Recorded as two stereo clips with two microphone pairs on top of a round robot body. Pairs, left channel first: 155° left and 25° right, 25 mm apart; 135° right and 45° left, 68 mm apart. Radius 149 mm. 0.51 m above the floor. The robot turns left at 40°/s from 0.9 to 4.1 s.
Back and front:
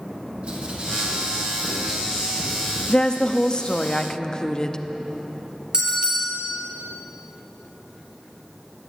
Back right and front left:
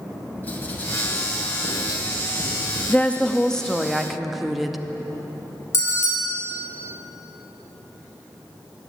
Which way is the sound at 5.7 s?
85° right.